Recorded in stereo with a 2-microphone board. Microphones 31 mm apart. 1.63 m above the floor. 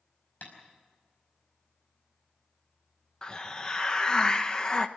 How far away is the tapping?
About 5 m.